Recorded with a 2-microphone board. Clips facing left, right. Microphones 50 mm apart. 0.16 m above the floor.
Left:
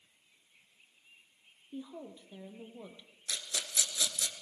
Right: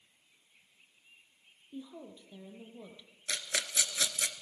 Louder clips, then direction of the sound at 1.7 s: Left 2 dB; 15° left (ahead or behind).